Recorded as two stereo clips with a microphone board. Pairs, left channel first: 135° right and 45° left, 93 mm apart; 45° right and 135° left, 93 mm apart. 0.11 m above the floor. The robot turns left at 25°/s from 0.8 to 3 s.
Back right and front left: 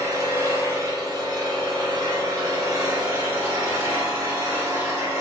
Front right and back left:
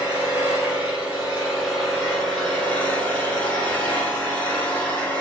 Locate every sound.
0.0 s an engine running: 70° left, 1.3 m; by 5.2 s 15° left, 1.3 m